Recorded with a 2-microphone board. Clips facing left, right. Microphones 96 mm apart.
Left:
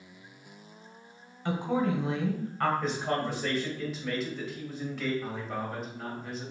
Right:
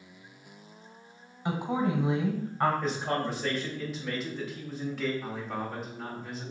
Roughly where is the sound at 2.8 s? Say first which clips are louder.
Even; centre.